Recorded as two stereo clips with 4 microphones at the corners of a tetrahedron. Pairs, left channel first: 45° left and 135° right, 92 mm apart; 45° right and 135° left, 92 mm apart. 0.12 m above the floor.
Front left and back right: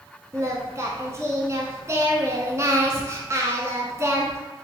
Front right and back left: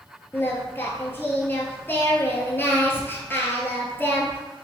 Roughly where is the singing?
Right.